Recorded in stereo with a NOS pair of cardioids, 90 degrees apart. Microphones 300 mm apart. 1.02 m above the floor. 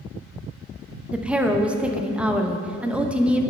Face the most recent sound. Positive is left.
turn(degrees=-5)